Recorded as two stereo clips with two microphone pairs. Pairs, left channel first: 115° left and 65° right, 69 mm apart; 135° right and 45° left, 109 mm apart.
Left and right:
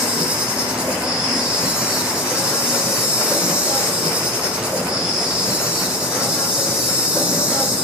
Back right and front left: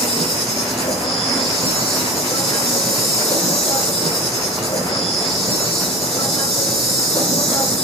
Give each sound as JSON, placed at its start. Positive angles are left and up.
{"t": 0.0, "sound": "an insect", "azimuth_deg": -145, "distance_m": 3.0}